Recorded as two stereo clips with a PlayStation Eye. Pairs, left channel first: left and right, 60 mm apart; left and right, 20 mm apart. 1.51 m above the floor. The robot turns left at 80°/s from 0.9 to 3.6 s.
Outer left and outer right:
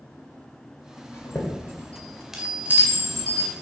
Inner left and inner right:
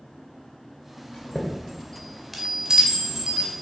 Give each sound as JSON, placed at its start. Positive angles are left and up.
{"t": 1.1, "sound": "a chime", "side_deg": 55, "distance_m": 1.9}